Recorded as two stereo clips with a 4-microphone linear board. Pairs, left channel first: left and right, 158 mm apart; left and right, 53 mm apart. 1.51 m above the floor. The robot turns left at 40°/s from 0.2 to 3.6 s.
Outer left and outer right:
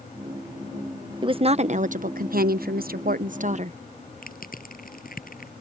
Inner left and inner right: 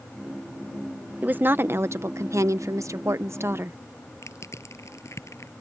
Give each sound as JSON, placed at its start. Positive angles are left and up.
{"t": 1.2, "sound": "a woman speaking", "azimuth_deg": -35}
{"t": 4.2, "sound": "crushing", "side_deg": 70}